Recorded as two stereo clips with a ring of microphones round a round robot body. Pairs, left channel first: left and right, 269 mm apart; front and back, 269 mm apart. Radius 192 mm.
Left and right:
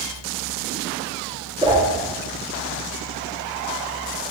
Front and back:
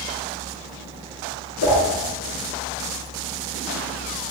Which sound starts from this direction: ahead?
A whoosh, at 1.6 s.